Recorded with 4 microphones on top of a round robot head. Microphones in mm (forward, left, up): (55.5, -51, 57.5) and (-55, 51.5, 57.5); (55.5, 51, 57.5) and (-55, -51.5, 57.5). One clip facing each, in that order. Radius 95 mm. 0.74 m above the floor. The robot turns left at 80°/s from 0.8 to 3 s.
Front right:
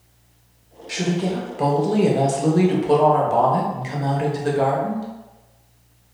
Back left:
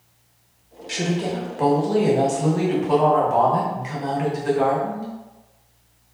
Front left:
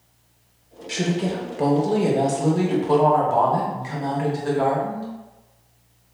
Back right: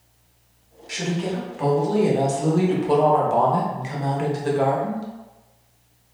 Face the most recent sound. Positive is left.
turn(degrees=-80)